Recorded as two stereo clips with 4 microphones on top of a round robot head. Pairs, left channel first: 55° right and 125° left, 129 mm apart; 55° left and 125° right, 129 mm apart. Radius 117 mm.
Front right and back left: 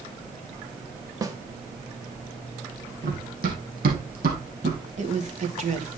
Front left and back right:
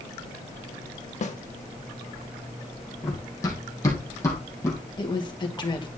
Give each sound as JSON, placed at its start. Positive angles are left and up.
{"t": 1.2, "sound": "a snare drum", "azimuth_deg": 65, "distance_m": 1.7}
{"t": 3.0, "sound": "running footsteps", "azimuth_deg": 115, "distance_m": 3.0}
{"t": 4.9, "sound": "a woman speaking", "azimuth_deg": 105, "distance_m": 2.5}